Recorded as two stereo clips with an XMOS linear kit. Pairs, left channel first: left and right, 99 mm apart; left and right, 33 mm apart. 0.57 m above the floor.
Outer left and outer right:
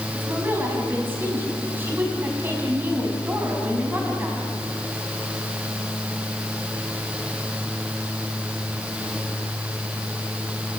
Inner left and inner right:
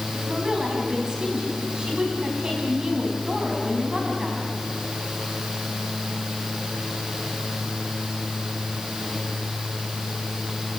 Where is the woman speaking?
20° right (ahead or behind), 5 m.